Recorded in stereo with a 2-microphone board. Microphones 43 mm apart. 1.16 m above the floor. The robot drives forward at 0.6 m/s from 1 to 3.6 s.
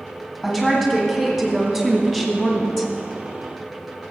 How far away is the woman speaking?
About 2.5 m.